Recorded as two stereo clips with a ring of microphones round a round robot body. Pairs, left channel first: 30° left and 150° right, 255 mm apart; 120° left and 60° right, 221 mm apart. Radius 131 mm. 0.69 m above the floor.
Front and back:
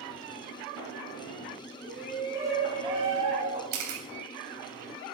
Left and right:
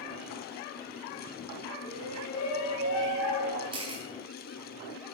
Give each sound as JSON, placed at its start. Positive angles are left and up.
{"t": 1.8, "sound": "a shout", "azimuth_deg": 120, "distance_m": 5.0}
{"t": 3.7, "sound": "a camera shutter", "azimuth_deg": -130, "distance_m": 3.0}